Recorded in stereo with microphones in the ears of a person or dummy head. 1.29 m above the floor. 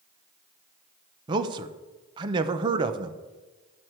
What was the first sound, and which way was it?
A man speaking, 25° right (ahead or behind).